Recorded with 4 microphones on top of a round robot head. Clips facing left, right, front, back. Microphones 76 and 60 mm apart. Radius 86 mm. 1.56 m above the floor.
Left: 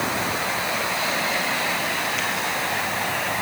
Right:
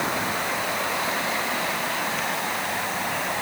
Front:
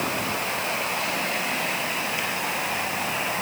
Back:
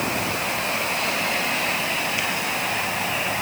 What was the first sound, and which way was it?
Only background noise.